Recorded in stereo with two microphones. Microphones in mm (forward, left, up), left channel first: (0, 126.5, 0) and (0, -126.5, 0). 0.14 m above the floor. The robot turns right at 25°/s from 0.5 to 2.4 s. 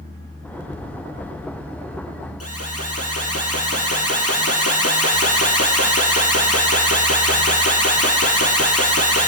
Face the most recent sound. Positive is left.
turn(degrees=70)  # may be behind; listen again after turning